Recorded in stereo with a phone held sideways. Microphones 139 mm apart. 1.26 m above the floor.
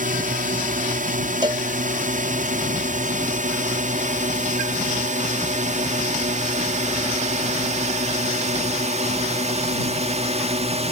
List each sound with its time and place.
0.0 s a drone: 65° right (ahead or behind); by 10.9 s 45° right (ahead or behind)
1.4 s a cowbell: 30° right (ahead or behind)